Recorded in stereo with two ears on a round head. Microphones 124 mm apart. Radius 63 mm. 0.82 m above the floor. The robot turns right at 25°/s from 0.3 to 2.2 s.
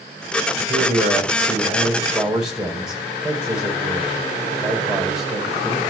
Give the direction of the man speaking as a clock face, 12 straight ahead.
1 o'clock.